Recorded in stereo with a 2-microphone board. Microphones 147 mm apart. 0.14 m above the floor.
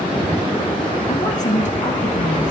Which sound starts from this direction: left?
A woman speaking, at 1.1 s.